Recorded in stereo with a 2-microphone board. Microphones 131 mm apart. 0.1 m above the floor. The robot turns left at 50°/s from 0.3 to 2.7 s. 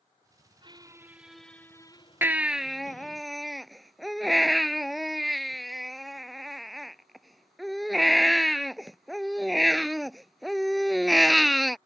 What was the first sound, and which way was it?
A squeak, 140° right.